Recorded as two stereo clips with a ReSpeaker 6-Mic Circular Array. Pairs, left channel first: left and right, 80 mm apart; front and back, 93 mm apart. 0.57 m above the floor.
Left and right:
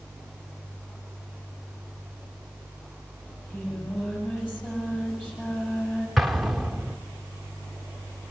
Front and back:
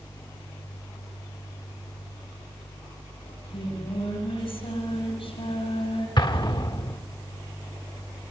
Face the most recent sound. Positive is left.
turn(degrees=0)